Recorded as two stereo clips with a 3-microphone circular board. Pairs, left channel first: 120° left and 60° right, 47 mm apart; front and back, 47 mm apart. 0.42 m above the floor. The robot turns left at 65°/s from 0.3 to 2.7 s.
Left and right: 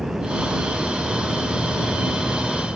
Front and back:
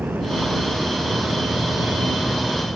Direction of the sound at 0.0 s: 140° right.